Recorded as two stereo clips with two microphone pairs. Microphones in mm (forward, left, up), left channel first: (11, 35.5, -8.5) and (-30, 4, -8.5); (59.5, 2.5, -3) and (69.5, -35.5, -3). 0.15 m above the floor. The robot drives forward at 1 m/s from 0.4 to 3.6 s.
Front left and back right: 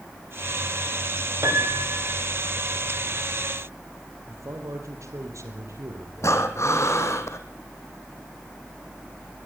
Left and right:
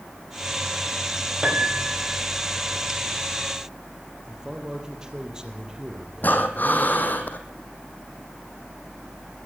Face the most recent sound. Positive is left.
turn(degrees=65)